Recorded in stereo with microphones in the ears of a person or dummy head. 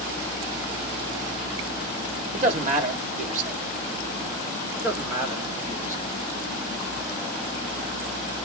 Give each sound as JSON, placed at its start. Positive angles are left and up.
{"t": 2.3, "sound": "a man speaking", "side_deg": -40, "distance_m": 1.4}
{"t": 4.8, "sound": "a man speaking", "side_deg": -20, "distance_m": 1.1}